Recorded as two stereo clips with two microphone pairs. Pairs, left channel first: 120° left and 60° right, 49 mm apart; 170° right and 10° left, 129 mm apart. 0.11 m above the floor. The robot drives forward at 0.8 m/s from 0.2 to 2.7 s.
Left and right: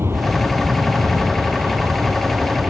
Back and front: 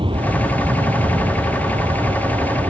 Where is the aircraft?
35° right; by 2.7 s 30° right.